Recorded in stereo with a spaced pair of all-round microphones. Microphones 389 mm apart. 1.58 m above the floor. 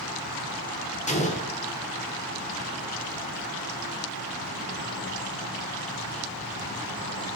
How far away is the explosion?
About 2 m.